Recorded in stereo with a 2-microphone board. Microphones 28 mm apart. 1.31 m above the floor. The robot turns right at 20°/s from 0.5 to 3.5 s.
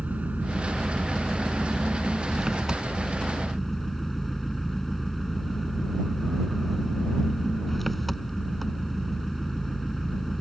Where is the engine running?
55° right; by 10.4 s 5° left.